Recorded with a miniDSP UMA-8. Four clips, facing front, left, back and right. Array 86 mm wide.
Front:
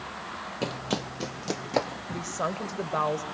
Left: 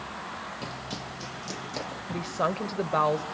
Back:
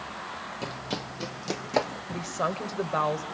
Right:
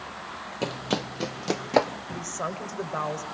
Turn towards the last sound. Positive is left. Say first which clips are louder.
# left 4 dB, back 1 dB
turn(degrees=105)